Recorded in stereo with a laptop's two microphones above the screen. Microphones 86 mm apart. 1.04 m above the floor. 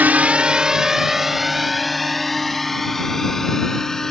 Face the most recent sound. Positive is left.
turn(degrees=5)  # may be behind; listen again after turning